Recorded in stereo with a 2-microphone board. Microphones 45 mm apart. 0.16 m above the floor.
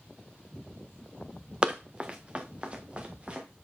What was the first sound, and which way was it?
Running footsteps, 25° right (ahead or behind).